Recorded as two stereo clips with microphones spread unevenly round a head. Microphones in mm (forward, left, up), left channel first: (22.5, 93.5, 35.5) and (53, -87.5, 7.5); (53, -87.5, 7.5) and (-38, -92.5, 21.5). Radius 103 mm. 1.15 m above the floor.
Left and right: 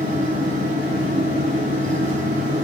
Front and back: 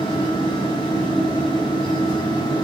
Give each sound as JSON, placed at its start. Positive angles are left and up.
{"t": 0.0, "sound": "a fan", "azimuth_deg": -30, "distance_m": 1.5}